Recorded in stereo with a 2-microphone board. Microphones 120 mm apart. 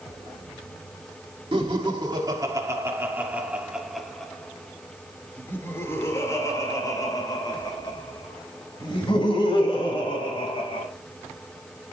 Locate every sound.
1.5 s laughter: 45° right (ahead or behind), 1.9 m; by 10.9 s 45° left (ahead or behind), 5 m